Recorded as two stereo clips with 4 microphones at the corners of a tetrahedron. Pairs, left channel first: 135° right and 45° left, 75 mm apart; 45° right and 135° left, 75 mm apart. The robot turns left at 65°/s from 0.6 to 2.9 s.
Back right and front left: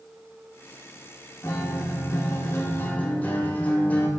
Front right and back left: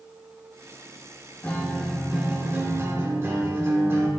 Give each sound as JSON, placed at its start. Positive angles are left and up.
{"t": 1.4, "sound": "a guitar", "azimuth_deg": -100, "distance_m": 0.5}